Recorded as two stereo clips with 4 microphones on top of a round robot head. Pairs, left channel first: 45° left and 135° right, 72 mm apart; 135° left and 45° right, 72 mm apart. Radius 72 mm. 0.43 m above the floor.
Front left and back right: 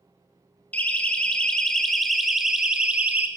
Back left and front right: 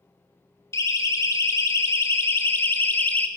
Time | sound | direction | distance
0.7 | a siren | 110° left | 2.5 m